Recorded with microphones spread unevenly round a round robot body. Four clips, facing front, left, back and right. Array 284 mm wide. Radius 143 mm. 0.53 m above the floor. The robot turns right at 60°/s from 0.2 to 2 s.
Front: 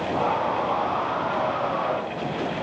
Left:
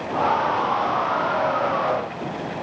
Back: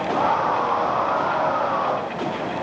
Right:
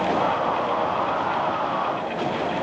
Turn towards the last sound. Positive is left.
No sound to turn to.